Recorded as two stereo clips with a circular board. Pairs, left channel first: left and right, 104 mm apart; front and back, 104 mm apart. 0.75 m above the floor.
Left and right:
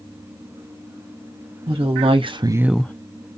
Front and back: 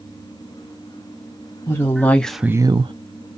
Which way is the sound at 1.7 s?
60° right.